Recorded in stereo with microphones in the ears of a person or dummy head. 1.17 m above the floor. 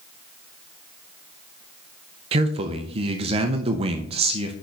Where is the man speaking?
35° right (ahead or behind), 0.5 m.